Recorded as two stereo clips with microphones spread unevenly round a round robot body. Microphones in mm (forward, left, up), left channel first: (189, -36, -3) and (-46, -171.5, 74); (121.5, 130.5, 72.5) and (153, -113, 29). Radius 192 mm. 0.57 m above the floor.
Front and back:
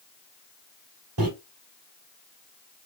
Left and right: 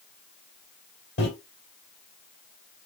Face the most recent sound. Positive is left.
turn(degrees=160)